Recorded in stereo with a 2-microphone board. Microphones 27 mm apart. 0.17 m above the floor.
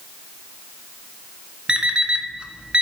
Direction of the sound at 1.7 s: 40° right (ahead or behind).